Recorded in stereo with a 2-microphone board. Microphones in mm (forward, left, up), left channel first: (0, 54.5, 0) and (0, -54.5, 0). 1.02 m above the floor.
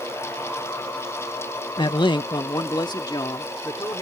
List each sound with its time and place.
1.8 s a man speaking: 45° left (ahead or behind); by 4.0 s 40° left (ahead or behind)